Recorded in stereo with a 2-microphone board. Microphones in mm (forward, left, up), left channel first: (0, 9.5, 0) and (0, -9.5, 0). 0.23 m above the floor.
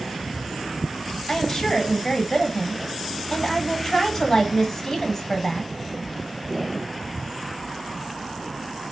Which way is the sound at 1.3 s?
25° left (ahead or behind).